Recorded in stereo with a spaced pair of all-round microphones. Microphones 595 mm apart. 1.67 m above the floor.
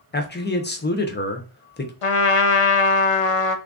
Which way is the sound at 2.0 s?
60° left (ahead or behind).